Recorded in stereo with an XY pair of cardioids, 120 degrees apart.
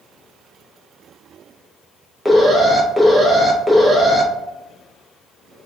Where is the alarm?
5° right, 0.7 m.